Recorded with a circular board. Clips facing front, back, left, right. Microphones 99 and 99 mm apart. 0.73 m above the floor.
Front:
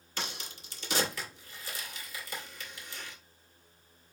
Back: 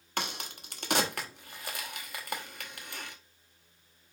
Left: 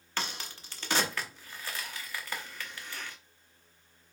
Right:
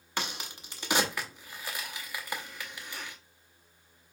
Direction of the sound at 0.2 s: 165° right.